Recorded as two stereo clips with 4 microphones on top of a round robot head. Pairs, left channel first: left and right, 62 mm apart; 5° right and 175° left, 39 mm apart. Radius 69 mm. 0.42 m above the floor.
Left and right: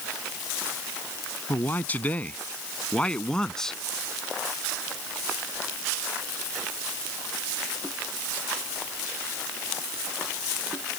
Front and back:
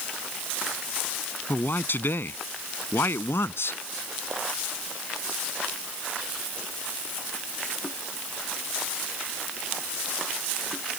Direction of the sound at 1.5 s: 30° left.